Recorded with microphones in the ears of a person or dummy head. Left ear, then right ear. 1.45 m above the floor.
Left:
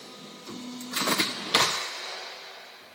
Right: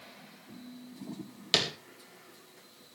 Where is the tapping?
75° right (ahead or behind), 4 m.